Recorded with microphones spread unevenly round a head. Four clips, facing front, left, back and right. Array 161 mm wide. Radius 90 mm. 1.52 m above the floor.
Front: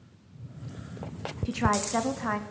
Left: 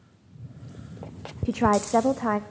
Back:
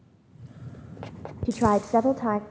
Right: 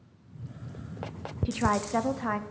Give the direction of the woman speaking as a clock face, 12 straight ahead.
7 o'clock.